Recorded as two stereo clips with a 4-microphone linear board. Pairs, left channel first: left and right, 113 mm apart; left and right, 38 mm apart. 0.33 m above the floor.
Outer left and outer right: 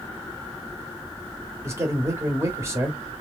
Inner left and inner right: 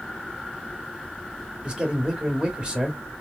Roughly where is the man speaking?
Right.